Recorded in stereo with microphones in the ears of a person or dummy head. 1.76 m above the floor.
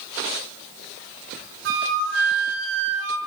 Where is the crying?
No crying in this recording.